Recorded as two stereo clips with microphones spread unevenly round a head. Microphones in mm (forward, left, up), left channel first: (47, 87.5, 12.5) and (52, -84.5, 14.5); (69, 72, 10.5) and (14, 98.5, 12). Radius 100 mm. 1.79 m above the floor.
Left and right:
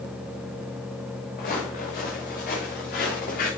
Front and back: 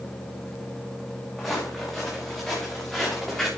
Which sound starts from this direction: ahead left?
Footsteps, at 1.4 s.